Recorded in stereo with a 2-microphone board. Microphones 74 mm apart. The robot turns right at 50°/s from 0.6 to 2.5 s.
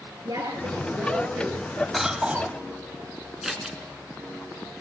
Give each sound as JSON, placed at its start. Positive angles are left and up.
{"t": 0.2, "sound": "a woman speaking", "azimuth_deg": -75, "distance_m": 6.5}
{"t": 1.9, "sound": "a cough", "side_deg": 0, "distance_m": 2.0}
{"t": 3.4, "sound": "scissors", "side_deg": -5, "distance_m": 3.5}